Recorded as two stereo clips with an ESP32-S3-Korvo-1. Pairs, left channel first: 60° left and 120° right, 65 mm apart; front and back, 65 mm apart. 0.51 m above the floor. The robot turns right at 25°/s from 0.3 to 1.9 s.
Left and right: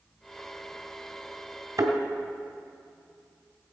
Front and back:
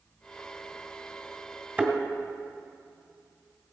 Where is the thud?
115° right, 1.6 m; by 1.9 s 110° right, 1.6 m.